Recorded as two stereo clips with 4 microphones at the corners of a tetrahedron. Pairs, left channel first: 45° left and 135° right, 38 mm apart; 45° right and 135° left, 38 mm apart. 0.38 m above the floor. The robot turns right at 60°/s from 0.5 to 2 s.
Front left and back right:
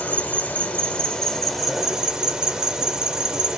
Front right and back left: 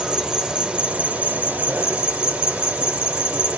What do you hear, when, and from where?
0.0 s an insect: 75° left, 0.8 m; by 3.6 s 165° left, 0.8 m